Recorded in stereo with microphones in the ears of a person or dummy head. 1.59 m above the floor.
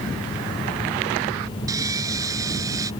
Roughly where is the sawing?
Centre.